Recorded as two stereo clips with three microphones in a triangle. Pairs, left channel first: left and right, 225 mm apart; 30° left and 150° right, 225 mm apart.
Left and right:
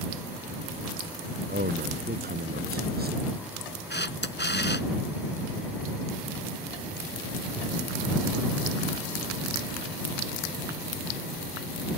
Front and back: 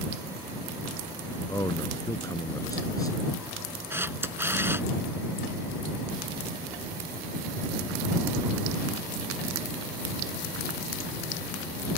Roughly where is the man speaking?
Ahead right.